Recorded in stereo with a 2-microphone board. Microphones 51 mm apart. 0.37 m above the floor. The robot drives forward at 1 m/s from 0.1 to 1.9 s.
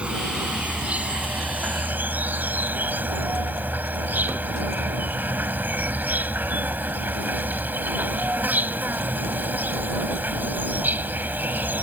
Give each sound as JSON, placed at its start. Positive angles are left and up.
{"t": 0.0, "sound": "an insect", "side_deg": -25}